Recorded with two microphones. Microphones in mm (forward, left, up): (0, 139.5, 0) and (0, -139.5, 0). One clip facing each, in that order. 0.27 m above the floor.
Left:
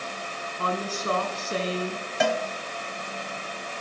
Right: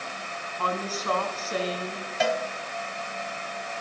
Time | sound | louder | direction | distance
0.6 | a woman speaking | left 1 dB | 30° left (ahead or behind) | 2.5 m
2.2 | a cowbell | left 1 dB | 55° left (ahead or behind) | 1.2 m